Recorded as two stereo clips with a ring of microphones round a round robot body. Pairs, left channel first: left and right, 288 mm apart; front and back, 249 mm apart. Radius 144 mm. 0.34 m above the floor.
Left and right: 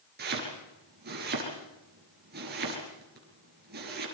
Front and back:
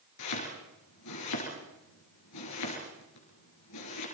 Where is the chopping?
30° right, 5 m.